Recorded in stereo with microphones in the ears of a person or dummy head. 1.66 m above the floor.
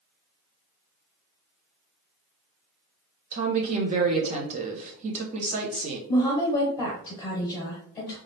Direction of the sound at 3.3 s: 35° right (ahead or behind).